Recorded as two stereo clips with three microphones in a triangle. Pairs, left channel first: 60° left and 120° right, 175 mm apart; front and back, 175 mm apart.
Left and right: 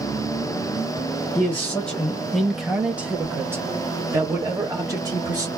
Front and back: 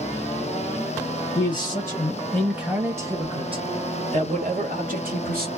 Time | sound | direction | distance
1.4 | a man speaking | 5° right | 1.1 m